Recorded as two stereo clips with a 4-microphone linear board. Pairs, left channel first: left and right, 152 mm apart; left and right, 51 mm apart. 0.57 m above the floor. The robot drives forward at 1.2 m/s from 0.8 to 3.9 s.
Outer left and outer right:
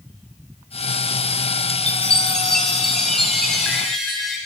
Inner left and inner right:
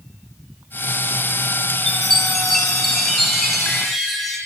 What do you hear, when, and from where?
1.9 s a chime: 5° left (ahead or behind), 0.6 m; by 4.4 s centre (ahead or behind), 3 m